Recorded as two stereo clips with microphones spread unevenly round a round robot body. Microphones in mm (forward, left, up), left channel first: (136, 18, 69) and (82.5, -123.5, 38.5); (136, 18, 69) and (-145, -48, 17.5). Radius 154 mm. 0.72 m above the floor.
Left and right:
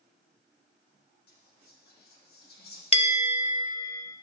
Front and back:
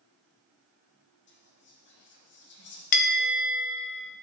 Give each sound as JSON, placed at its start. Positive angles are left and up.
{"t": 1.3, "sound": "whispering", "azimuth_deg": 70, "distance_m": 1.2}
{"t": 2.9, "sound": "a bell", "azimuth_deg": 10, "distance_m": 0.9}